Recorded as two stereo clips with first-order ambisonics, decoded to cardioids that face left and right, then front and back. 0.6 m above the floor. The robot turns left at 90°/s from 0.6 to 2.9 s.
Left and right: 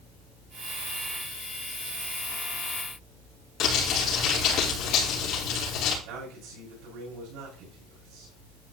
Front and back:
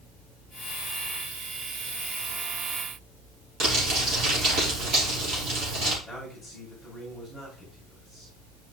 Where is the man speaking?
100° right, 6.5 m.